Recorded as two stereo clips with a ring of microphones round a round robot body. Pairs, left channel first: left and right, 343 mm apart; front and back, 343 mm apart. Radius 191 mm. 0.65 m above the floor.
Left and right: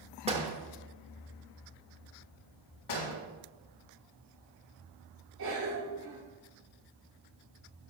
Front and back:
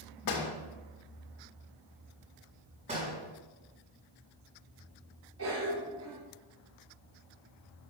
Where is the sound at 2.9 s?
105° left, 4.5 m.